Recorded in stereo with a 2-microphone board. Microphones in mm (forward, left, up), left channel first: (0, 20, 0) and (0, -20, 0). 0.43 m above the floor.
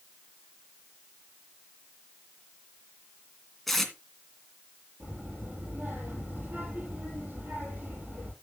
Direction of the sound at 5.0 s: 50° right (ahead or behind).